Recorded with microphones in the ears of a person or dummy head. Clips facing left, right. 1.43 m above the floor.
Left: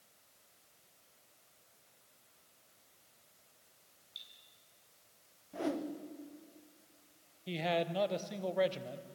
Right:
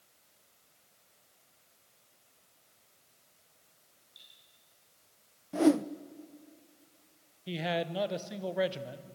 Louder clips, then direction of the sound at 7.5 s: Right 1 dB; 5° right (ahead or behind).